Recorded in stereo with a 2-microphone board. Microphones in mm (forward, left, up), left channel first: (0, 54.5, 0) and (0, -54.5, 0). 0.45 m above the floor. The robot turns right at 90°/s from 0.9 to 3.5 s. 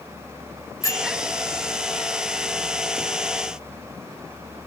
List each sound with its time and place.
0.8 s a bell: 30° left (ahead or behind), 1.7 m; by 1.1 s 15° left (ahead or behind), 1.7 m